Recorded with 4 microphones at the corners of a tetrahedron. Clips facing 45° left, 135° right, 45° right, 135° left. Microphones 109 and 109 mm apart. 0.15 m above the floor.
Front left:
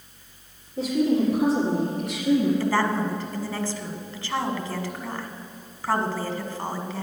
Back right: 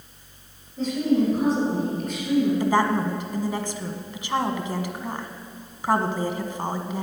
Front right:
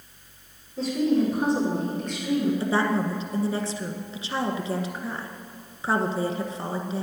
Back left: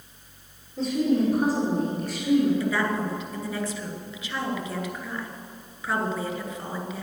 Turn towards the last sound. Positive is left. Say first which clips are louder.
# back right 2 dB, front right 2 dB
turn(degrees=-75)